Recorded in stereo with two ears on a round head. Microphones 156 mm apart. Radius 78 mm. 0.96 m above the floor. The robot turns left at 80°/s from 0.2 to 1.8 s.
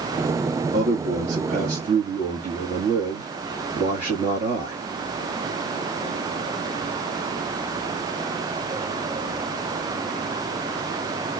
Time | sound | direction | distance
0.7 | a man speaking | 60° right | 1.8 m